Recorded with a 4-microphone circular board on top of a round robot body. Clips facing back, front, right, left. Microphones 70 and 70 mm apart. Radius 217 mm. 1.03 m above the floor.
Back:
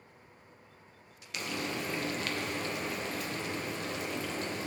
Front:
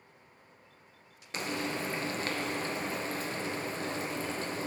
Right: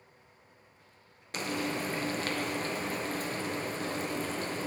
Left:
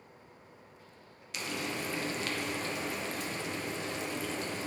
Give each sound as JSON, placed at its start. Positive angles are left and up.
{"t": 1.3, "sound": "frying", "azimuth_deg": -50, "distance_m": 0.8}